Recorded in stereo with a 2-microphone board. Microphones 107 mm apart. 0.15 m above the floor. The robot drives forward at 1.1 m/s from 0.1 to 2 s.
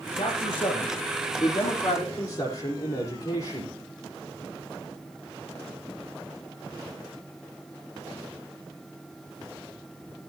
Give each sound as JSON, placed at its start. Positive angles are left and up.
{"t": 0.1, "sound": "a man speaking", "side_deg": 50, "distance_m": 3.5}